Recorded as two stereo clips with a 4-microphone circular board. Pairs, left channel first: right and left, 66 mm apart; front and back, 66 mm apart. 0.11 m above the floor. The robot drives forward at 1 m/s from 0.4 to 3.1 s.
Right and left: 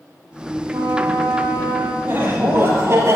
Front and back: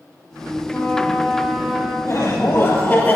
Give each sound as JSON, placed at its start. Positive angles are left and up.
{"t": 0.7, "sound": "a trumpet", "azimuth_deg": 60, "distance_m": 1.4}
{"t": 2.0, "sound": "laughter", "azimuth_deg": 35, "distance_m": 2.5}